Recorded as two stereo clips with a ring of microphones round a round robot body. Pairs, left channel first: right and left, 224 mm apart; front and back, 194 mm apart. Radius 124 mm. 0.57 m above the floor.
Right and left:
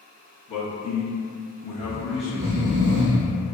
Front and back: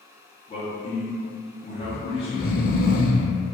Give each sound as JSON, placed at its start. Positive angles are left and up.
{"t": 0.5, "sound": "a man speaking", "azimuth_deg": -45, "distance_m": 0.7}
{"t": 1.8, "sound": "snoring", "azimuth_deg": 45, "distance_m": 0.5}